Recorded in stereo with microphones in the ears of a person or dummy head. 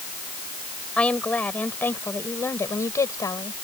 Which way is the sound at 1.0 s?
5° left (ahead or behind).